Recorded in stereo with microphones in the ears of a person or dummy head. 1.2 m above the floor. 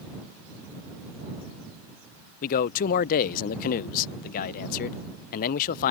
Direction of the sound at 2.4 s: 50° left (ahead or behind).